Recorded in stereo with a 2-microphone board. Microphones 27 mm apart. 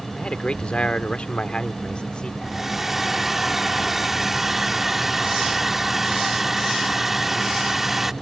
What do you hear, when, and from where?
0.2 s a man speaking: 40° left (ahead or behind); by 2.3 s 35° left (ahead or behind)
2.4 s a hair dryer: 10° right (ahead or behind)